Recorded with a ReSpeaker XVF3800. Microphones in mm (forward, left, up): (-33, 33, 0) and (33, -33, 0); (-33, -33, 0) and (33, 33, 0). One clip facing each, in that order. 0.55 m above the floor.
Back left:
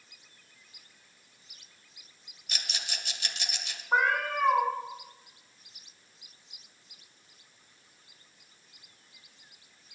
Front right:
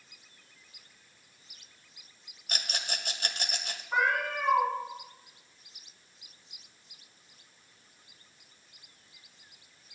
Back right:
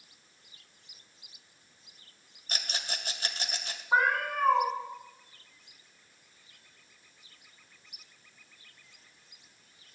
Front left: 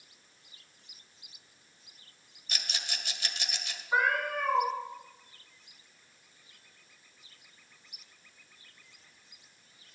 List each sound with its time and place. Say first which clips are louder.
2.5 s a rattle: front right 3 dB, back right 2 dB; 85° right, 0.8 m
3.9 s a cat meowing: back left 2 dB, back right 2 dB; straight behind, 2.5 m